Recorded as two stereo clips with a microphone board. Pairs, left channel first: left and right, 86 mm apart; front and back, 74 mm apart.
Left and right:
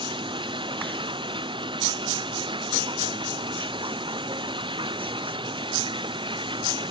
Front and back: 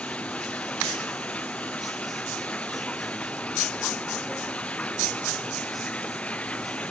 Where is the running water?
75° right.